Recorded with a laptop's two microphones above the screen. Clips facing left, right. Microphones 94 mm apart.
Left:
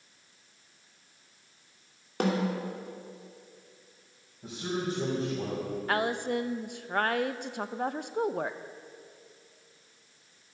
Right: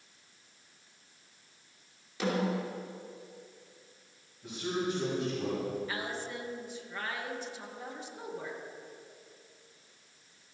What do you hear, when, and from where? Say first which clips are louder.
2.2 s a snare drum: left 3 dB; 55° left (ahead or behind), 3 m
4.4 s a man speaking: even; 40° left (ahead or behind), 5 m
5.9 s a woman speaking: left 9 dB; 60° left (ahead or behind), 0.7 m